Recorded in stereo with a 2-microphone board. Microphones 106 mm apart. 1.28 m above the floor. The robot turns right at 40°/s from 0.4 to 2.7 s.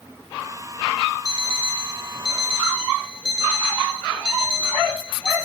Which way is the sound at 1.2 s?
40° left (ahead or behind).